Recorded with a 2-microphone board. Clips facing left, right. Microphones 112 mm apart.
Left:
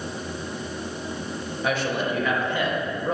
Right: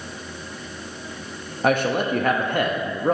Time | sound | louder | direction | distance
1.6 | a man speaking | right 5 dB | 50° right (ahead or behind) | 0.6 m